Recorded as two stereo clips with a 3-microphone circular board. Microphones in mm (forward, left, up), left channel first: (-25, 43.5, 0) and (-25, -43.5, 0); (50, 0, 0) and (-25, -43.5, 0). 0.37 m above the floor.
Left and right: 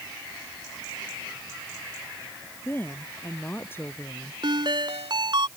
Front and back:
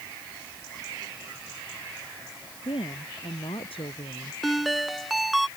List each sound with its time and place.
2.6 s a woman speaking: 25° left
4.4 s a ringtone: 60° right